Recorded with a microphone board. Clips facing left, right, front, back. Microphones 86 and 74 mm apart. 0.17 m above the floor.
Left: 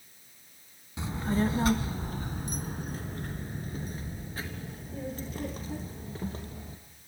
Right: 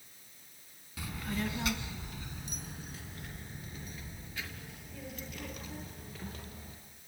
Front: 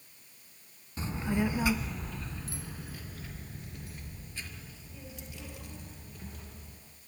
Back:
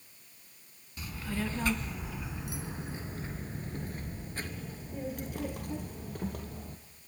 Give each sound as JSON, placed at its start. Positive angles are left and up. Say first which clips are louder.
{"t": 1.0, "sound": "a child speaking", "louder": "left 8 dB, front 5 dB", "azimuth_deg": 40, "distance_m": 0.9}